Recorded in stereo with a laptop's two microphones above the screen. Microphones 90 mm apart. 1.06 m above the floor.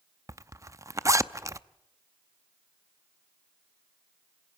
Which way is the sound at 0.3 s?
35° right (ahead or behind).